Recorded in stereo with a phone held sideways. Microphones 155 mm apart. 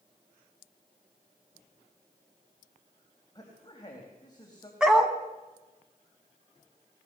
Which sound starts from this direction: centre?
A dog barking, at 4.8 s.